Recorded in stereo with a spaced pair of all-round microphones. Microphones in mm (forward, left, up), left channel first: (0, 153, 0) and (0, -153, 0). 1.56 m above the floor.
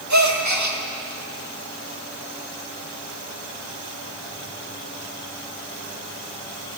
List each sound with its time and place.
0.1 s a gasp: 65° right (ahead or behind), 2 m